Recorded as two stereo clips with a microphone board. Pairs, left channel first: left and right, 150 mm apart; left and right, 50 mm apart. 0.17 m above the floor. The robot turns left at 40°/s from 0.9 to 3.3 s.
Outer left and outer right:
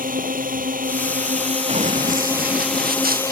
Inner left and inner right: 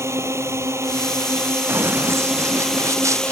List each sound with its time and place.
0.0 s a drone: 105° right; by 3.3 s 160° left
1.7 s running footsteps: 50° right (ahead or behind); by 3.3 s 75° right (ahead or behind)